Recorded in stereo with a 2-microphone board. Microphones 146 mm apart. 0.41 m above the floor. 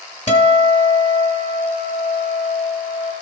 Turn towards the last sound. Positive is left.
turn(degrees=55)  # may be behind; listen again after turning